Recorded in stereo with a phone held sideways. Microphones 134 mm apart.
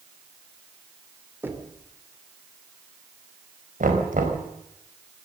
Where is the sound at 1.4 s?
15° right (ahead or behind), 2.5 m.